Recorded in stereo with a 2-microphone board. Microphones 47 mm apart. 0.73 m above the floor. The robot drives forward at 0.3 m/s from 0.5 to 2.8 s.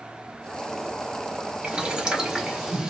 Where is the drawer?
No drawer in this recording.